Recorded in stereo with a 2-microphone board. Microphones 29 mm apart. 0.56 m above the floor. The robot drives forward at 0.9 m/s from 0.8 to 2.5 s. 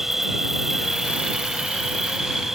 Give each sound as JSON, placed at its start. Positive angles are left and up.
{"t": 0.0, "sound": "an insect", "side_deg": -15}